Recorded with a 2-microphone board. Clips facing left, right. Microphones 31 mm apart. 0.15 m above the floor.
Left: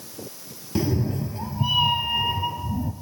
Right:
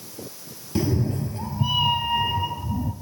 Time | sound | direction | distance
0.8 | a cat meowing | 5° left (ahead or behind) | 1.4 m